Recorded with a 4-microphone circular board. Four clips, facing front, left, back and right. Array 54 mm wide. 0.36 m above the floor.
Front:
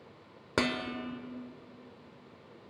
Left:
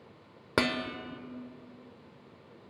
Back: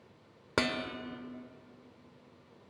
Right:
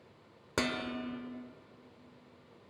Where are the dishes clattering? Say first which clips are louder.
Left 4 dB, front 1 dB; 100° left, 0.8 m.